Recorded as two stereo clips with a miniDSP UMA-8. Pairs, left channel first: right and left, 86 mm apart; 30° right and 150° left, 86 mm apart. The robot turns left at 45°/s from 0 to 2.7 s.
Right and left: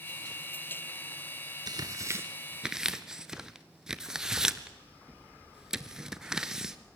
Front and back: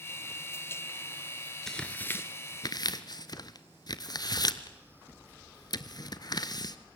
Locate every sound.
1.7 s tearing paper: 55° left, 1.0 m; by 6.8 s 10° left, 1.0 m